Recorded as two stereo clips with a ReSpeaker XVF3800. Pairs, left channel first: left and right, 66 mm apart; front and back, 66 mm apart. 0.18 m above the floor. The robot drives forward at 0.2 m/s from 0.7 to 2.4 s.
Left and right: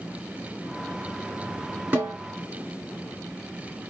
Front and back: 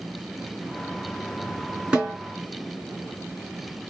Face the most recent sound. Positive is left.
turn(degrees=-135)